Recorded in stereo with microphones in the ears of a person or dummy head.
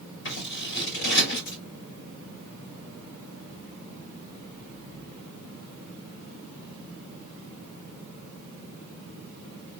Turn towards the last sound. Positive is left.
turn(degrees=65)  # may be behind; listen again after turning